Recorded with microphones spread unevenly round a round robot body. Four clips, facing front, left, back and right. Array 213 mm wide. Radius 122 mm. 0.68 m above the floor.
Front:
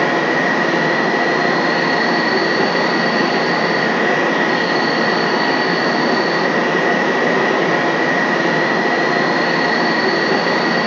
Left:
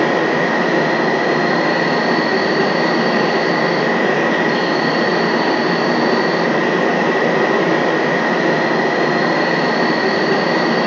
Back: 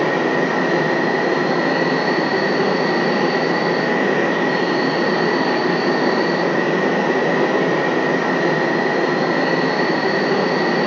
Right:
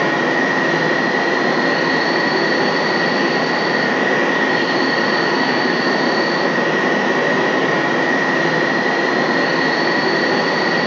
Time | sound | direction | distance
0.0 | an insect | 75° left | 0.8 m